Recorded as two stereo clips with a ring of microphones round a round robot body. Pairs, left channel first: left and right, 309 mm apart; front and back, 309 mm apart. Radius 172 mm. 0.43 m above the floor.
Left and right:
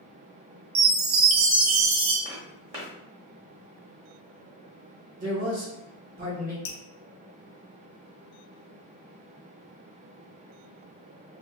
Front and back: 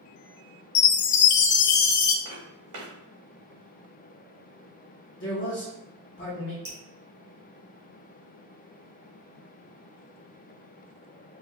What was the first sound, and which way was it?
A chime, 35° right.